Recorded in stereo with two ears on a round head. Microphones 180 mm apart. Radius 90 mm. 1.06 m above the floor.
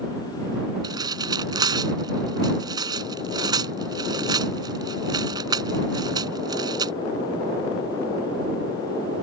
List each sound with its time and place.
0.8 s tearing paper: 20° right (ahead or behind)